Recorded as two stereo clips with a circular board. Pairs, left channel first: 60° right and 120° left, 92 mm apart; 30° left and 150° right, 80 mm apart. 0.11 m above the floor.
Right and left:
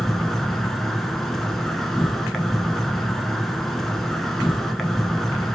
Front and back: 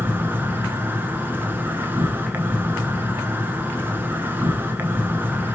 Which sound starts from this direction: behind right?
An insect, at 0.0 s.